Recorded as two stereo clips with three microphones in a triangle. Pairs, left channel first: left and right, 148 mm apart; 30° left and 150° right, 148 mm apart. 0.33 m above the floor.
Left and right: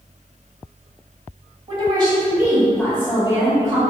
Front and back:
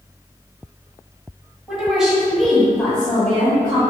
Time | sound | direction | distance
1.7 | a woman speaking | 70° right | 1.9 m